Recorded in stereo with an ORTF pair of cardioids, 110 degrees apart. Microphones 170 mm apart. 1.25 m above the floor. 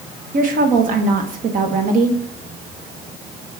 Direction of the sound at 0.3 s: 55° right.